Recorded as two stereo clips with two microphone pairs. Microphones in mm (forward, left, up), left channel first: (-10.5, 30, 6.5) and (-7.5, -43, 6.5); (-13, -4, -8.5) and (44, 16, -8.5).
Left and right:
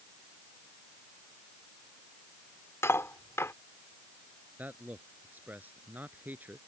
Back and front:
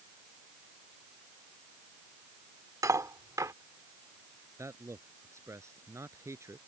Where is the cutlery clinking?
40° left.